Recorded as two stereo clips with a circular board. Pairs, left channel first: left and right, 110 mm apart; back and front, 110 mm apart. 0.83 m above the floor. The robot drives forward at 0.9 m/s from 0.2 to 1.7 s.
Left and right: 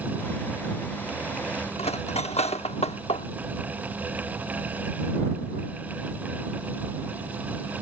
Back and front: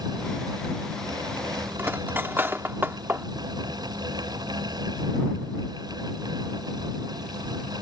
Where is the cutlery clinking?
70° left.